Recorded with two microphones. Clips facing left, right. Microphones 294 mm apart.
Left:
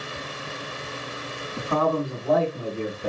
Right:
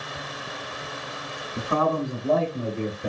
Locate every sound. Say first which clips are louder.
1.6 s a man speaking: left 1 dB; 15° right (ahead or behind), 1.4 m